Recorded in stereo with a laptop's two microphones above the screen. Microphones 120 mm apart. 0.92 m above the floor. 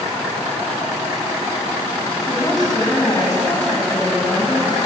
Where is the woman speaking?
35° left (ahead or behind), 7.5 m.